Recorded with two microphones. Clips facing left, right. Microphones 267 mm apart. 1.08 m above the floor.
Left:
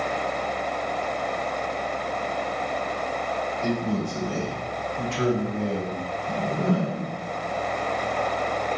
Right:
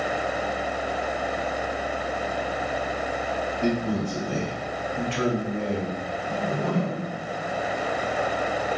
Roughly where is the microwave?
No microwave in this recording.